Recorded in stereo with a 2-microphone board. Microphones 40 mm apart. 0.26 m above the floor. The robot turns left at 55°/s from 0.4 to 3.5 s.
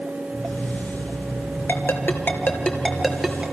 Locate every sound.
1.7 s a ringtone: 75° left (ahead or behind), 2.5 m; by 3.4 s 10° right (ahead or behind), 2.5 m